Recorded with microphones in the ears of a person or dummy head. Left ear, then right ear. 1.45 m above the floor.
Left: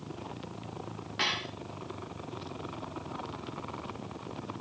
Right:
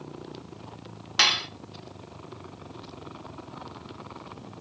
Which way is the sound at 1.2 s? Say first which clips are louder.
Right 9 dB; 50° right (ahead or behind).